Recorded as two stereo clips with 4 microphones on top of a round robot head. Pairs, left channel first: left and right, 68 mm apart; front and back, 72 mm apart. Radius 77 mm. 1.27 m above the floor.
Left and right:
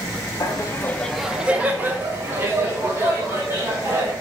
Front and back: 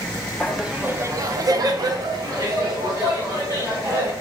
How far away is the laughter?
About 0.8 m.